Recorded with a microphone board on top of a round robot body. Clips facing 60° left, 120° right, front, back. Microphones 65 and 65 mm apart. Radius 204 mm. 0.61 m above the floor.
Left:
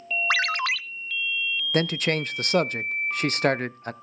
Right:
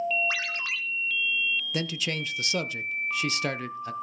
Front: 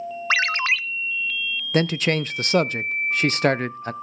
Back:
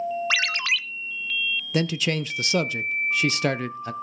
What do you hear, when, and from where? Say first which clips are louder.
0.3 s a ringtone: left 8 dB, front 4 dB; 50° left, 0.7 m
1.7 s a man speaking: left 7 dB, front 4 dB; 30° left, 0.7 m